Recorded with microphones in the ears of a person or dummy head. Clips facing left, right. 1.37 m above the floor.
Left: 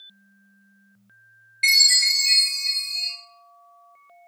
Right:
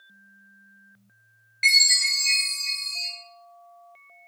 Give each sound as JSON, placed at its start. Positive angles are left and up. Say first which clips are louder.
{"t": 1.6, "sound": "a chime", "louder": "even", "side_deg": -25, "distance_m": 1.3}